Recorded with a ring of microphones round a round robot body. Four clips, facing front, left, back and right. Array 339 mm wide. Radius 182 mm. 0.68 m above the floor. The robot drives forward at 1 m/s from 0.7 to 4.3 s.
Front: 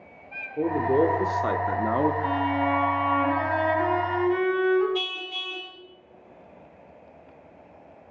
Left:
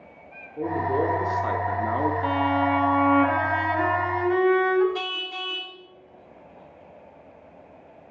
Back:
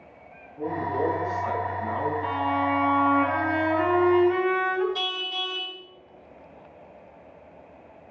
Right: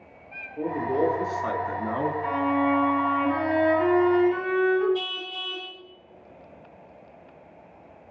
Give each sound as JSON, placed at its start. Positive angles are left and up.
{"t": 0.6, "sound": "a man speaking", "azimuth_deg": 5, "distance_m": 3.0}
{"t": 2.2, "sound": "a violin", "azimuth_deg": 90, "distance_m": 3.0}
{"t": 5.0, "sound": "a car horn", "azimuth_deg": 105, "distance_m": 3.0}